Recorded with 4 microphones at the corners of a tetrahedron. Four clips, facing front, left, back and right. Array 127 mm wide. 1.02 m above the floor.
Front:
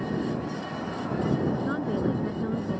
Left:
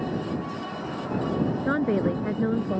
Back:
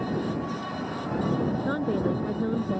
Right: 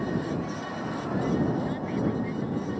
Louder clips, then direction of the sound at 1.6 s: Left 5 dB, back 1 dB; 105° left.